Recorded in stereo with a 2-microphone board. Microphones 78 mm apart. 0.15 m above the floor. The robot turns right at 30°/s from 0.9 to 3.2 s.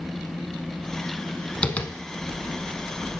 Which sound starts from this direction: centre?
Tapping, at 1.6 s.